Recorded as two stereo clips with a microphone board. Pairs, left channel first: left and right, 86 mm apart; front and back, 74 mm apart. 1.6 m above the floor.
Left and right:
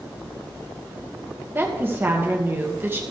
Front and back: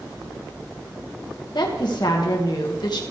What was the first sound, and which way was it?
A woman speaking, 25° right.